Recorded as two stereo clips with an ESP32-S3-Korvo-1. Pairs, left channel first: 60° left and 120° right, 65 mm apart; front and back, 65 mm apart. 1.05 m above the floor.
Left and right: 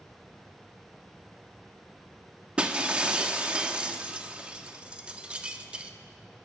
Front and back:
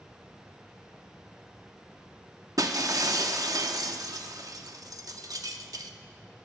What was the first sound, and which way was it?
Breaking glass, 170° left.